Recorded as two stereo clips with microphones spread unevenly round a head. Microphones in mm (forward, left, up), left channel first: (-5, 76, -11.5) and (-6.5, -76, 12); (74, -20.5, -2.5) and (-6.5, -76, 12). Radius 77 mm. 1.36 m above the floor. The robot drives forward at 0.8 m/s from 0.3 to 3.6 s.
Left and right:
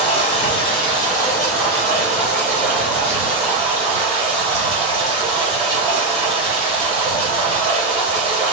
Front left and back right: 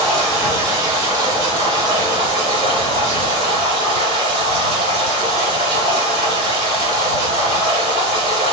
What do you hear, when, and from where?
0.0 s running water: 135° left, 0.9 m; by 8.5 s 170° left, 3 m